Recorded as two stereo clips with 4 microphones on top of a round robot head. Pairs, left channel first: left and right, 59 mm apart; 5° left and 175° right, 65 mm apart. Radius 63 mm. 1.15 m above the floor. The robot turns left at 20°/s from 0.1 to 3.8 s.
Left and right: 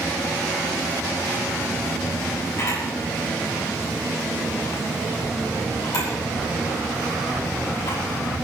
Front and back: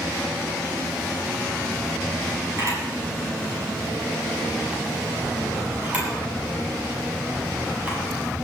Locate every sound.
2.6 s a camera shutter: 145° left, 9 m; by 8.0 s 120° left, 9 m